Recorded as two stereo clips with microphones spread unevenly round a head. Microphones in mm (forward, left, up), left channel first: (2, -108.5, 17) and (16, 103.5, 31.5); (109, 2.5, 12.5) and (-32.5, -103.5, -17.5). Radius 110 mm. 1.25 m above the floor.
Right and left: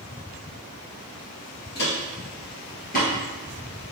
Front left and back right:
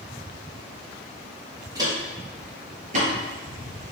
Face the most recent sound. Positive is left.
turn(degrees=-130)